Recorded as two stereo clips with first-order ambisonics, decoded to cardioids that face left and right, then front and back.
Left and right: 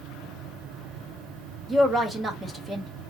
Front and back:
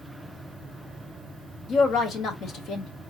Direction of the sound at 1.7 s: 25° right.